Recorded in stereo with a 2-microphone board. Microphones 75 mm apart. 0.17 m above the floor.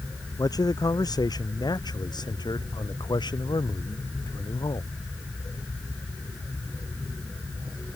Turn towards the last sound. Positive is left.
turn(degrees=80)